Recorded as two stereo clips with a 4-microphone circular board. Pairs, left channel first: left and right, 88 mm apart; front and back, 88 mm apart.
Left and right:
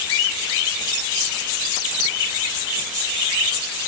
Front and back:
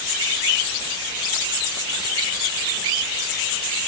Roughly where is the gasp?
No gasp in this recording.